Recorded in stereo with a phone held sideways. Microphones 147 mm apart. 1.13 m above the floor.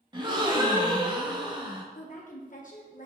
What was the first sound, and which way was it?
A gasp, 30° right (ahead or behind).